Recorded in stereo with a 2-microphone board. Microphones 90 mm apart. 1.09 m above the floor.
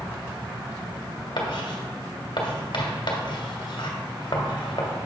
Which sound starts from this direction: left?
Writing, at 1.4 s.